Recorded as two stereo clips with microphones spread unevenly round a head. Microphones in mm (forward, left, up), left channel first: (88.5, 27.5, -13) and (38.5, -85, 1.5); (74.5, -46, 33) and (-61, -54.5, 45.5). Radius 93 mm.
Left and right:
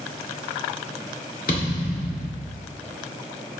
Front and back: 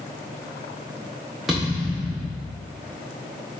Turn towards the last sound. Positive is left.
turn(degrees=95)